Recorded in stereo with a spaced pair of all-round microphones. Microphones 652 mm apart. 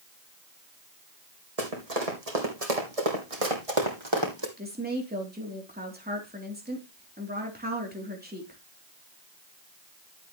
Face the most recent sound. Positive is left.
turn(degrees=-15)  # may be behind; listen again after turning